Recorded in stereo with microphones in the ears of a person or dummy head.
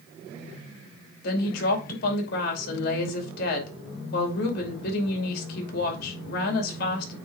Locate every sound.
1.2 s a woman speaking: 60° left (ahead or behind), 2.5 m